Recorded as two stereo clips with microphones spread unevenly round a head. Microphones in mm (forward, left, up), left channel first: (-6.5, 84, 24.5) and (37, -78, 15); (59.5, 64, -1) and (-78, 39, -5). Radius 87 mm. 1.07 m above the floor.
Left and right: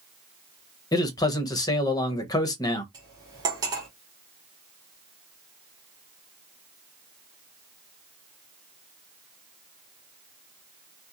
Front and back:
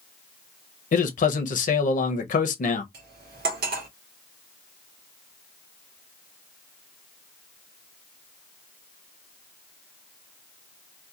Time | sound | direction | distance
0.9 | a man speaking | 35° left | 0.7 m
2.9 | cutlery clinking | 145° right | 0.9 m